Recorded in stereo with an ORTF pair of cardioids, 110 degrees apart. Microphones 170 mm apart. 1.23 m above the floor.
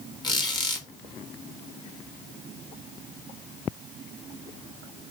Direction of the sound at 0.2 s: 25° left.